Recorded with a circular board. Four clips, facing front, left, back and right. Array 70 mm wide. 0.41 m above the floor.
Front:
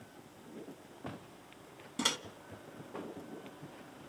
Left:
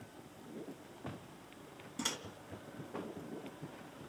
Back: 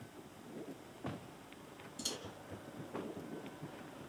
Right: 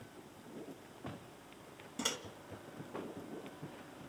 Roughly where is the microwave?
Ahead.